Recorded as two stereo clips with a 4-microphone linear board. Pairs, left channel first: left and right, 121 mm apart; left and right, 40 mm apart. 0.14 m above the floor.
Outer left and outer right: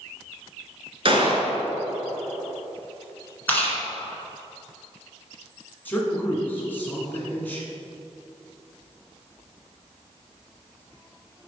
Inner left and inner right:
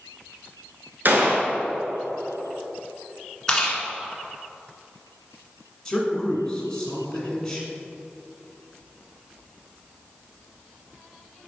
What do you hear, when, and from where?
1.1 s a gunshot: 50° right (ahead or behind), 1.3 m
3.5 s chewing: 15° left (ahead or behind), 1.6 m
5.8 s a man speaking: 15° left (ahead or behind), 1.5 m